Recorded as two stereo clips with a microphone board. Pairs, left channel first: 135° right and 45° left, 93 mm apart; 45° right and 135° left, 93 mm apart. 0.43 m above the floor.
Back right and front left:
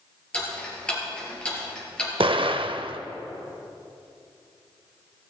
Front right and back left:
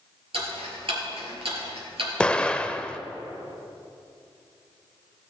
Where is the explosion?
30° left, 0.5 m.